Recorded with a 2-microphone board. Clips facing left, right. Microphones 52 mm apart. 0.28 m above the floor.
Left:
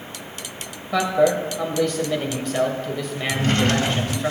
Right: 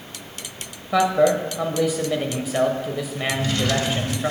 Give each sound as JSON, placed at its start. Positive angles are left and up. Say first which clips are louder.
{"t": 0.9, "sound": "a man speaking", "louder": "right 1 dB", "side_deg": -10, "distance_m": 0.9}
{"t": 3.3, "sound": "a drawer", "louder": "left 3 dB", "side_deg": 45, "distance_m": 0.6}